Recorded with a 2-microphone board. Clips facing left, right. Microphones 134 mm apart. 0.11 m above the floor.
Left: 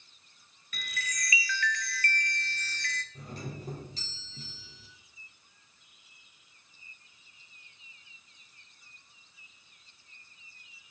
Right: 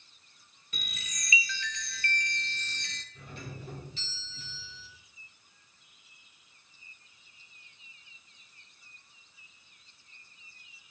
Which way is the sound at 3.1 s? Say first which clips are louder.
Left 3 dB; 40° left (ahead or behind).